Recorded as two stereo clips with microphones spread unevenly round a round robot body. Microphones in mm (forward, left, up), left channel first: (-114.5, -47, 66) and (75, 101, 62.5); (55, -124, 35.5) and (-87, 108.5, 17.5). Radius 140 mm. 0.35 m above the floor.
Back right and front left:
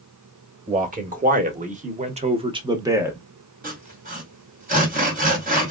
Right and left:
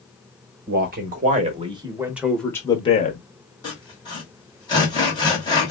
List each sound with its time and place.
0.7 s a man speaking: 85° left, 1.3 m; by 3.2 s 35° right, 0.9 m
3.6 s sawing: 10° left, 1.8 m